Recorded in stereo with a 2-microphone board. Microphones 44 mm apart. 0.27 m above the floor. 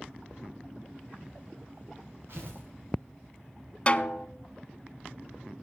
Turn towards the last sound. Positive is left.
turn(degrees=30)  # may be behind; listen again after turning